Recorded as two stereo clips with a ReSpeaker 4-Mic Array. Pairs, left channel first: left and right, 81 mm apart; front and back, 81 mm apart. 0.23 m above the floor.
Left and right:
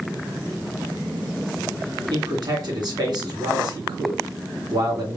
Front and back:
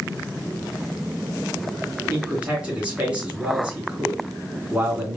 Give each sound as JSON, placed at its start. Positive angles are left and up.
{"t": 2.1, "sound": "a man speaking", "azimuth_deg": -105, "distance_m": 3.0}